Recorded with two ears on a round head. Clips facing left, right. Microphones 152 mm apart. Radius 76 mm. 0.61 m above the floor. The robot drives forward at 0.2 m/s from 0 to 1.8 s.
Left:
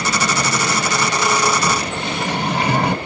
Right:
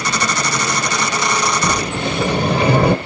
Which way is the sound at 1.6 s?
70° right (ahead or behind).